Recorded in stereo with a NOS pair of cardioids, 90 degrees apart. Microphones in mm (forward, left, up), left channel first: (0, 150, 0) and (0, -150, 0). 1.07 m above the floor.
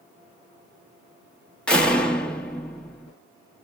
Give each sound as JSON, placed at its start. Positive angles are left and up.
{"t": 1.7, "sound": "a door slam", "azimuth_deg": 5, "distance_m": 0.8}